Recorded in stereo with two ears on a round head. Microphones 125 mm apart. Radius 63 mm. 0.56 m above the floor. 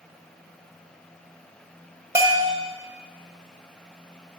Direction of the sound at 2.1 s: 20° right (ahead or behind).